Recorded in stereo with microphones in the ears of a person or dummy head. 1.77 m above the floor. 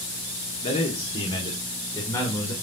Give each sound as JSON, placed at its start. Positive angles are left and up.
{"t": 0.6, "sound": "a man speaking", "side_deg": 30, "distance_m": 1.8}